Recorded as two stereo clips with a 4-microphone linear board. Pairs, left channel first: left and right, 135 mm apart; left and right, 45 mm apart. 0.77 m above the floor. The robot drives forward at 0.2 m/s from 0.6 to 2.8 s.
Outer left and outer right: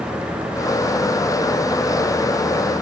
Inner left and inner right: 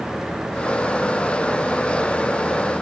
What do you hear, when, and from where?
Only background noise.